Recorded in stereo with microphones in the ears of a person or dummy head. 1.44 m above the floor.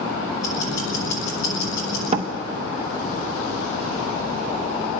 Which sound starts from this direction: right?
A door slam, at 2.1 s.